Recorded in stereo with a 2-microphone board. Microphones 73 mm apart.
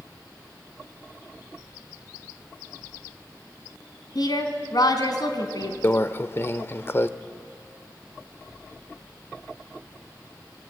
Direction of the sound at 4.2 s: 60° left (ahead or behind).